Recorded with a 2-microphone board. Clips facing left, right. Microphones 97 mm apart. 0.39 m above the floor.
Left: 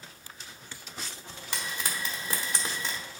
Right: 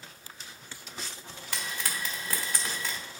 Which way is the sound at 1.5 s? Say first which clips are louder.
Left 1 dB; 20° left (ahead or behind).